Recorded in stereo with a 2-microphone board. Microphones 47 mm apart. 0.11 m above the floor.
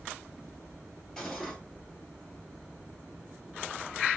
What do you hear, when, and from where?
1.2 s cutlery clinking: 10° left (ahead or behind), 1.5 m